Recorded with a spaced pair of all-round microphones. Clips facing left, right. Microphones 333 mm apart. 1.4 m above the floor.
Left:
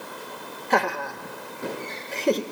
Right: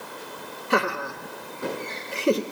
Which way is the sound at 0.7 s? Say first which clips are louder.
Even; 15° right (ahead or behind).